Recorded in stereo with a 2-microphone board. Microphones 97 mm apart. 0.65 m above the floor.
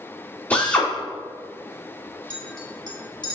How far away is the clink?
About 2 m.